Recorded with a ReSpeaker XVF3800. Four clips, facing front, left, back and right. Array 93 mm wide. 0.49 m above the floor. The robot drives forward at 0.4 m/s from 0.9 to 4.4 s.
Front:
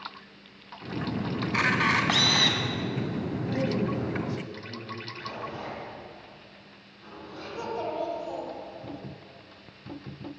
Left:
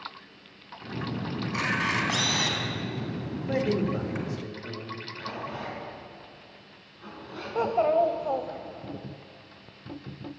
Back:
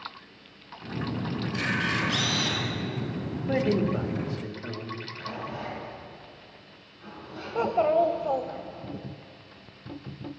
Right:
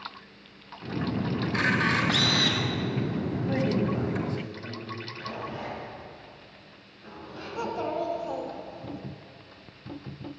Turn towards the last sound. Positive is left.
turn(degrees=140)